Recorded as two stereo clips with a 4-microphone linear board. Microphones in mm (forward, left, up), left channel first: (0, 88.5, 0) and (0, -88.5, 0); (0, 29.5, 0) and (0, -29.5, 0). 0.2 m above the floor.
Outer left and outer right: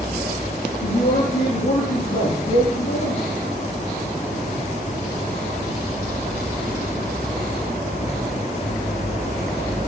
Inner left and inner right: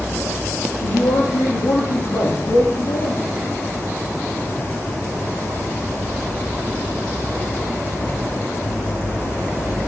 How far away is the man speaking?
About 6.5 m.